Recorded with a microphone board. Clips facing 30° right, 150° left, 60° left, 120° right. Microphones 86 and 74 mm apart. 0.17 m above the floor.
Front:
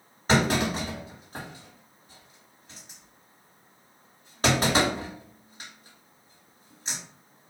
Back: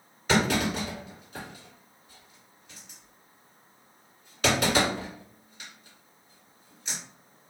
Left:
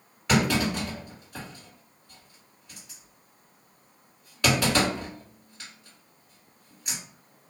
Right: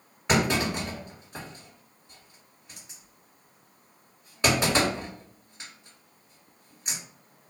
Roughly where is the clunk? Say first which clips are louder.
Front 1 dB, left 1 dB; ahead right.